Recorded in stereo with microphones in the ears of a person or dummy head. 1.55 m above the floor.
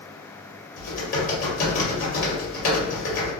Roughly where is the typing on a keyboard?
Left.